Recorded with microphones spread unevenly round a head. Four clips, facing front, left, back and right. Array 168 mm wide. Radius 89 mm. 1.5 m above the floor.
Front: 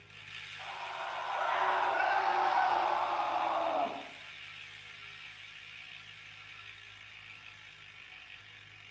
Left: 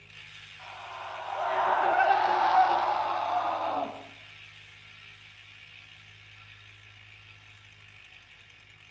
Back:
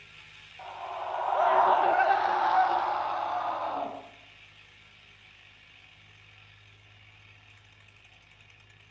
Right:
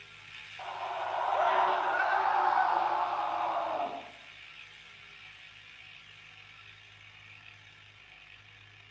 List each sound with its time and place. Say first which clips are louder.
0.6 s a scream: right 6 dB, back 5 dB; 120° right, 1.3 m; by 3.9 s 95° left, 2.5 m